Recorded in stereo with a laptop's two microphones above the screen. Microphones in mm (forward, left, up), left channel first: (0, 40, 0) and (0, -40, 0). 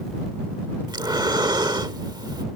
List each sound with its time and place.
0.9 s breathing: 65° right (ahead or behind)